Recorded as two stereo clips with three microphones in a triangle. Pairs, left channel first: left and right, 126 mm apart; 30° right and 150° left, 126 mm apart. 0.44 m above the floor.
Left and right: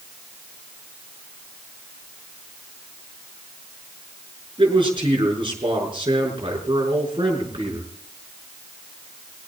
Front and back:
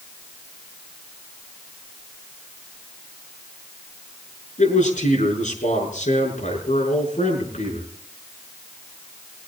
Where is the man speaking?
40° right, 6.5 m.